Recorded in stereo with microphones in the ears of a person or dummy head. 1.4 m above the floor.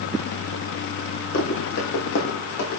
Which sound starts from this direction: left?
Running footsteps, at 1.3 s.